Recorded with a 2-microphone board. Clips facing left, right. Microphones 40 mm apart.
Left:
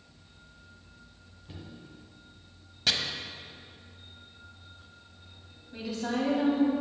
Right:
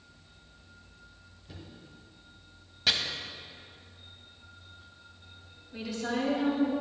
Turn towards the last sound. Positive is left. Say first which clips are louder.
# left 1 dB
turn(degrees=20)  # may be behind; listen again after turning